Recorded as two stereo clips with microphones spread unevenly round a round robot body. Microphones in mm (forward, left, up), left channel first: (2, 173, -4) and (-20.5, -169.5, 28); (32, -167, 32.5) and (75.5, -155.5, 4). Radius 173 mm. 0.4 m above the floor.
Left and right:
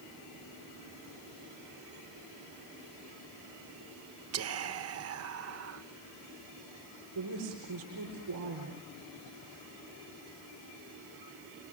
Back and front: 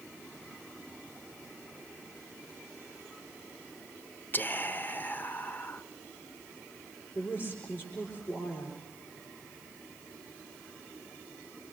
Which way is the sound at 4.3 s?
85° right.